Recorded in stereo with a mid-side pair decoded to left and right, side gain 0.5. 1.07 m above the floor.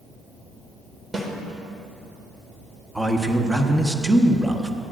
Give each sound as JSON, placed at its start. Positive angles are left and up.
{"t": 1.1, "sound": "a snare drum", "azimuth_deg": -20, "distance_m": 1.7}
{"t": 3.0, "sound": "a man speaking", "azimuth_deg": -10, "distance_m": 1.2}